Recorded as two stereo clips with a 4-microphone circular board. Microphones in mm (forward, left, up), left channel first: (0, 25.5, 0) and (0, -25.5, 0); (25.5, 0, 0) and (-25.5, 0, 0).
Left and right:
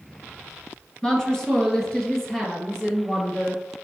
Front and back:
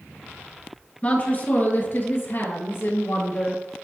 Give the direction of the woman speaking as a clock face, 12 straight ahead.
11 o'clock.